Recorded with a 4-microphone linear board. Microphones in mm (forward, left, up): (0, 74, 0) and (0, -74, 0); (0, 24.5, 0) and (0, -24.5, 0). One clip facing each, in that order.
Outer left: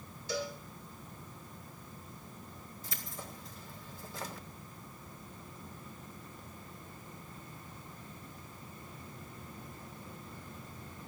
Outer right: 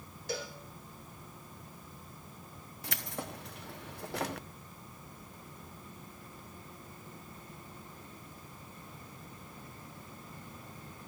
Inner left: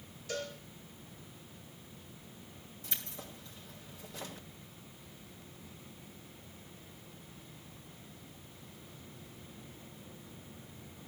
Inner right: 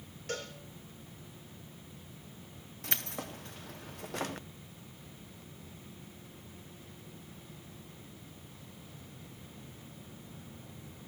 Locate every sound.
0.3 s a cowbell: 60° right (ahead or behind), 3 m
2.8 s keys jangling: 70° right (ahead or behind), 0.7 m